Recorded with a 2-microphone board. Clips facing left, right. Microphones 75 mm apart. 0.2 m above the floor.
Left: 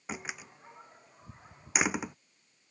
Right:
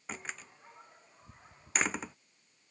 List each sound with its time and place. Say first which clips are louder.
0.1 s a door slam: left 3 dB; 10° left (ahead or behind)